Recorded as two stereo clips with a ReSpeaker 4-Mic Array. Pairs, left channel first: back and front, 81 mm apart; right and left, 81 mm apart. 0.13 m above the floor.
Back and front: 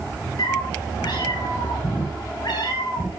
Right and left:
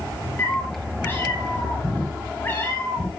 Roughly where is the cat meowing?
Behind right.